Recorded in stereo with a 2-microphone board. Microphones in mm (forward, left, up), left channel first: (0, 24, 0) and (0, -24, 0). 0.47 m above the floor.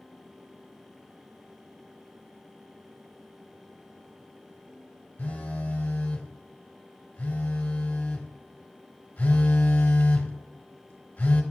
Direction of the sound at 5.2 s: 40° left (ahead or behind).